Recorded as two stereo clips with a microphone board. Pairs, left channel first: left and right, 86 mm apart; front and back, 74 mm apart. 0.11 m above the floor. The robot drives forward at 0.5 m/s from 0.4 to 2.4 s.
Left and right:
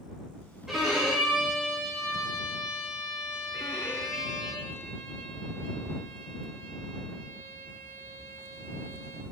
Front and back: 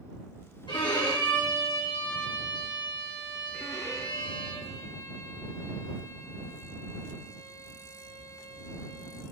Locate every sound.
0.7 s a violin: 5° right, 2.5 m; by 4.5 s 10° right, 1.8 m
3.5 s a violin: 35° left, 0.9 m